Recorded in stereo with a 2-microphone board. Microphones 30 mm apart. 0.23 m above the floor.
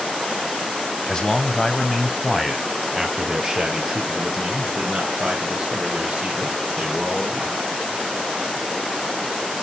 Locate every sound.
1.1 s a man speaking: 30° left (ahead or behind), 1.3 m; by 7.6 s 20° right (ahead or behind), 5 m